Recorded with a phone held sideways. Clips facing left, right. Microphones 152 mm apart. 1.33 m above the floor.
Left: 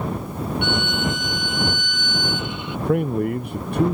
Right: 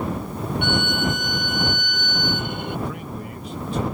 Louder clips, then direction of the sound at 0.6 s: Right 1 dB; 50° right (ahead or behind).